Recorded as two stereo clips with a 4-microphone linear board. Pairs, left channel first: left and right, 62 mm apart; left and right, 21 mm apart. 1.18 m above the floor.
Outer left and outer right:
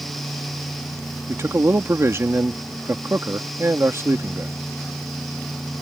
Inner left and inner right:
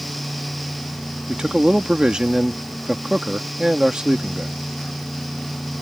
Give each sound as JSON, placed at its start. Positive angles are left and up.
{"t": 1.3, "sound": "a man speaking", "side_deg": -45}